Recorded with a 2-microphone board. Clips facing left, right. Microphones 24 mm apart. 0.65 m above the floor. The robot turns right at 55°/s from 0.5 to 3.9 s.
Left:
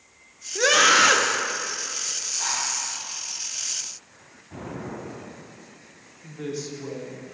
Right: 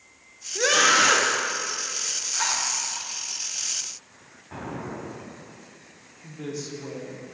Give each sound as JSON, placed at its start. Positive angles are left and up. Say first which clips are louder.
{"t": 0.6, "sound": "a scream", "louder": "left 2 dB", "side_deg": 15, "distance_m": 0.5}
{"t": 2.3, "sound": "a zipper", "louder": "right 2 dB", "side_deg": -70, "distance_m": 2.0}
{"t": 4.5, "sound": "an explosion", "louder": "right 1 dB", "side_deg": -40, "distance_m": 1.4}
{"t": 6.2, "sound": "a woman speaking", "louder": "left 2 dB", "side_deg": 15, "distance_m": 1.1}